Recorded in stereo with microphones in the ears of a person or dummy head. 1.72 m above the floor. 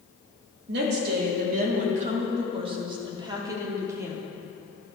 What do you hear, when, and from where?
0.7 s a woman speaking: 60° right (ahead or behind), 2.0 m; by 4.2 s 10° right (ahead or behind), 2.5 m